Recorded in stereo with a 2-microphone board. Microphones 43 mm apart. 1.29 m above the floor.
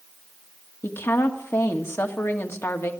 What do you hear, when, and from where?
0.8 s a woman speaking: 85° left, 1.7 m